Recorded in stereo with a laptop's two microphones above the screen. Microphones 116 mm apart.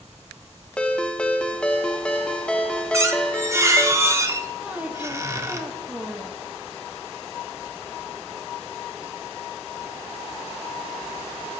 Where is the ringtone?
10° left (ahead or behind), 0.5 m.